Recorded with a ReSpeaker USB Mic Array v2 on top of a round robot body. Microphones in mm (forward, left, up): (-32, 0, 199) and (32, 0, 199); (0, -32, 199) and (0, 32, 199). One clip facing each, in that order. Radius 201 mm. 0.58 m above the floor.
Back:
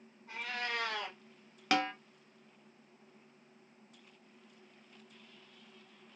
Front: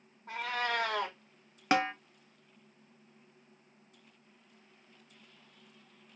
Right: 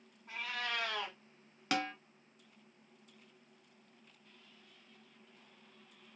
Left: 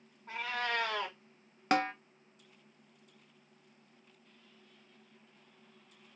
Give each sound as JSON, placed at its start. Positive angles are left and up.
{"t": 0.3, "sound": "a cat meowing", "azimuth_deg": 30, "distance_m": 0.6}
{"t": 1.7, "sound": "a snare drum", "azimuth_deg": 55, "distance_m": 0.9}